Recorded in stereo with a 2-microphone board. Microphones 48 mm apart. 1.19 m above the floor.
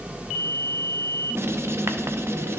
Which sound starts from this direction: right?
Writing, at 1.4 s.